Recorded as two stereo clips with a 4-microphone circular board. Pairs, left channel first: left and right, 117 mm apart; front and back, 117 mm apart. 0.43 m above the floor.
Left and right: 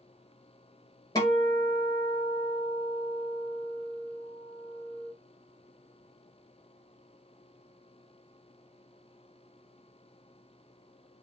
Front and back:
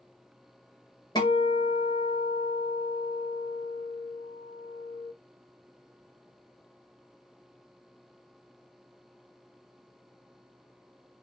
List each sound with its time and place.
1.1 s a guitar: 45° left, 1.7 m